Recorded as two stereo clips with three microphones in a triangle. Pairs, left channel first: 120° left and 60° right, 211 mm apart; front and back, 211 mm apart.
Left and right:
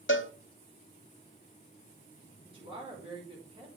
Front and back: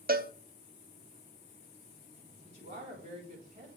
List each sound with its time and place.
0.1 s a cowbell: 135° left, 0.7 m
2.4 s a woman speaking: 125° right, 3.5 m